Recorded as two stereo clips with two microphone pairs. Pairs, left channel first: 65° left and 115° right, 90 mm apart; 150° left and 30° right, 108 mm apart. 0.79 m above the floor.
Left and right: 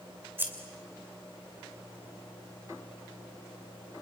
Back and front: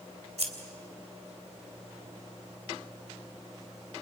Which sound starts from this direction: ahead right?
Scissors, at 0.4 s.